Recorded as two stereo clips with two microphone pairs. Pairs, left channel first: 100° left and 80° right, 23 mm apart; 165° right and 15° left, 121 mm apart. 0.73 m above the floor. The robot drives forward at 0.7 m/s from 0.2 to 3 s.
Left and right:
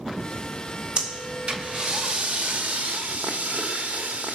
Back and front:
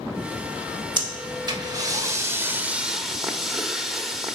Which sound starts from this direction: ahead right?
Breathing, at 1.0 s.